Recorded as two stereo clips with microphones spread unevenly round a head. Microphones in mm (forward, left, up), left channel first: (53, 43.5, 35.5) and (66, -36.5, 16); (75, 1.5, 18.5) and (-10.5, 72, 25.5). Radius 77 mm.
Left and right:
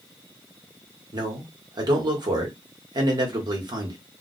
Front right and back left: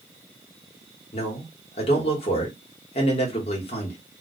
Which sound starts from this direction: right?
A man speaking, at 1.1 s.